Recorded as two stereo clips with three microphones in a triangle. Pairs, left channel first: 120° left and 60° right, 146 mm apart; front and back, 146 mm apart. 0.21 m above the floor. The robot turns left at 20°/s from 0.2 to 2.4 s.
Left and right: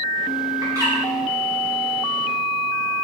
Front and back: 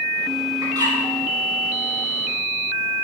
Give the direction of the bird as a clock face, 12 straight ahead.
4 o'clock.